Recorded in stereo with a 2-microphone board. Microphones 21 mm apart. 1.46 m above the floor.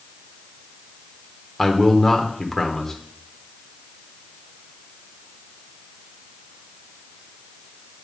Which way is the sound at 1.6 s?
5° left (ahead or behind).